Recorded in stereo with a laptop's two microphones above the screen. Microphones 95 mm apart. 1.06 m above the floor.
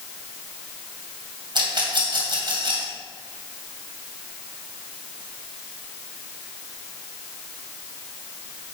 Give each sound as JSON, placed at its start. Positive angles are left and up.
{"t": 1.6, "sound": "a rattle", "side_deg": -55, "distance_m": 2.5}